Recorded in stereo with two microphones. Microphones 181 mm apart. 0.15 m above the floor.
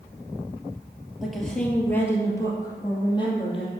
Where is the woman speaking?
Centre (ahead or behind), 2.5 m; by 3.7 s 30° left (ahead or behind), 4 m.